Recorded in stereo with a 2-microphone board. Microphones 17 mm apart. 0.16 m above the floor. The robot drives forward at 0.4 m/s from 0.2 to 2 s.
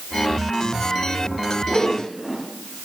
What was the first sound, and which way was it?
A whoosh, centre (ahead or behind).